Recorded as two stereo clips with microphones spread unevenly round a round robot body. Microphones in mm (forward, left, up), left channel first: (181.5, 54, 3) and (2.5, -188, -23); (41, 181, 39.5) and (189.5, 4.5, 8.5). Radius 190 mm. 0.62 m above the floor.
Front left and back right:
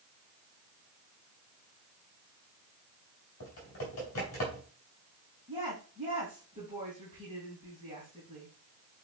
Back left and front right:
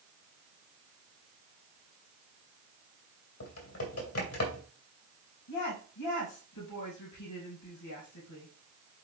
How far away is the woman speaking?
About 3.5 m.